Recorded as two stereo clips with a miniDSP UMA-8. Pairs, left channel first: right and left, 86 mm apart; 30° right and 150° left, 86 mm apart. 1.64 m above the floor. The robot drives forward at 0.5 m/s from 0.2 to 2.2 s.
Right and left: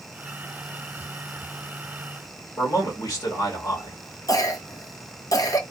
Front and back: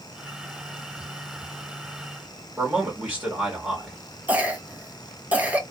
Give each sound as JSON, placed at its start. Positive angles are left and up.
{"t": 2.6, "sound": "a man speaking", "azimuth_deg": -125, "distance_m": 2.5}
{"t": 4.3, "sound": "a cough", "azimuth_deg": -135, "distance_m": 1.2}